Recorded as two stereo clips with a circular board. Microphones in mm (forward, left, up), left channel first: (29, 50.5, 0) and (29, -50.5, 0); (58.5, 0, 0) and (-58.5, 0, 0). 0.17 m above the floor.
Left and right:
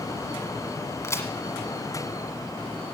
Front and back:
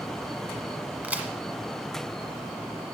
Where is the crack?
115° left, 1.6 m.